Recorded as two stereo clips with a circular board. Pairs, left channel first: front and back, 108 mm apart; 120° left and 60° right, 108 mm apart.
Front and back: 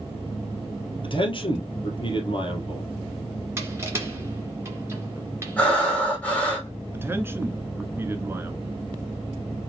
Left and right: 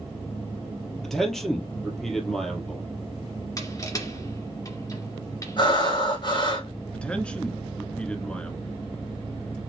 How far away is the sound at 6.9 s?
About 1.1 m.